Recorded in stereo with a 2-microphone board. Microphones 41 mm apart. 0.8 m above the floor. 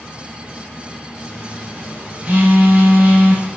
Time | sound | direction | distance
1.3 | a phone buzzing | 35° right (ahead or behind) | 3 m